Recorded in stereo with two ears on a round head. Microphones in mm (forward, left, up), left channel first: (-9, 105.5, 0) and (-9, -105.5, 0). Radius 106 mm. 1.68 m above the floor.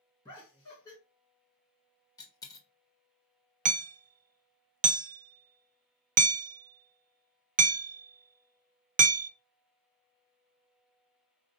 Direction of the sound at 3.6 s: 30° right (ahead or behind).